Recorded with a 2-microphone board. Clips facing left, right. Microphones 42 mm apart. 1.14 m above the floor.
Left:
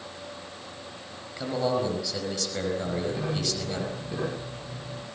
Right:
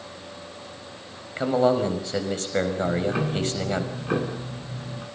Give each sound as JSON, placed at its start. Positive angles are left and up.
{"t": 1.4, "sound": "a man speaking", "side_deg": -35, "distance_m": 5.0}
{"t": 2.8, "sound": "ticking", "side_deg": -85, "distance_m": 8.0}